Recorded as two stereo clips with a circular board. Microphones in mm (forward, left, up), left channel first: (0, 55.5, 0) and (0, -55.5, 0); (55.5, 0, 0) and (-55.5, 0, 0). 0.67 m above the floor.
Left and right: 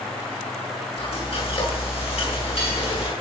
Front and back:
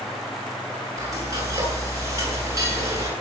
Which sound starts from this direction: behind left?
Frying, at 1.0 s.